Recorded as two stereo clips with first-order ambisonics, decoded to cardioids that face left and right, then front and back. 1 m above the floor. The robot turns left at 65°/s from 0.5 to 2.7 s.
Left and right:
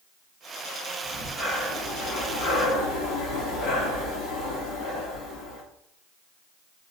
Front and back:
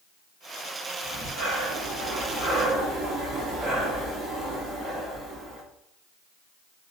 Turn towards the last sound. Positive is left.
turn(degrees=105)